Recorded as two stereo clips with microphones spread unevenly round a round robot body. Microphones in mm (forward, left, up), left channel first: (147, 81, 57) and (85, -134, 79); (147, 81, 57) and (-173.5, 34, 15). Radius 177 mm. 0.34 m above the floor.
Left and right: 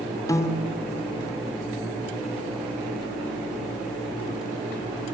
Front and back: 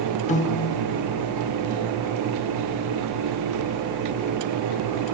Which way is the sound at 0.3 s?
55° left.